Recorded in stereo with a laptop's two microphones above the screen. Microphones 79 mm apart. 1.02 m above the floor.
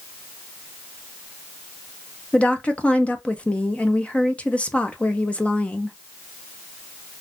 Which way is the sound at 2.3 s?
15° left (ahead or behind).